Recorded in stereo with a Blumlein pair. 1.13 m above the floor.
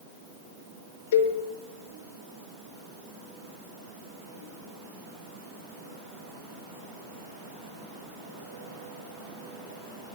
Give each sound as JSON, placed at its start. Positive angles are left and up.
{"t": 1.1, "sound": "a cowbell", "azimuth_deg": 60, "distance_m": 2.0}